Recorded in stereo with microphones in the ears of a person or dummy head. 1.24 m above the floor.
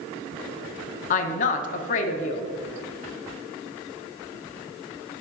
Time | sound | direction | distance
1.1 | a woman speaking | 50° left (ahead or behind) | 0.8 m